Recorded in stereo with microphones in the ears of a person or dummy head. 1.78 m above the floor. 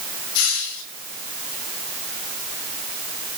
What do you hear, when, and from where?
0.3 s a hiss: 80° left, 7 m